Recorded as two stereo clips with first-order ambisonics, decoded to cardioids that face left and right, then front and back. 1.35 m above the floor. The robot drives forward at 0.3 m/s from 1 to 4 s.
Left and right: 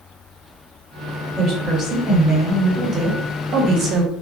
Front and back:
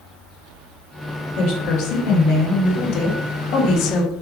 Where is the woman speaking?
20° right, 1.2 m; by 4.1 s 50° right, 0.6 m.